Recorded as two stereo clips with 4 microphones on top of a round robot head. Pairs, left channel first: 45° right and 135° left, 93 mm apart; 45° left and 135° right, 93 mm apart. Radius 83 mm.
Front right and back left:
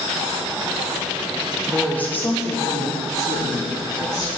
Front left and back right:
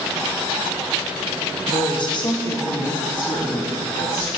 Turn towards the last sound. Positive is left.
turn(degrees=0)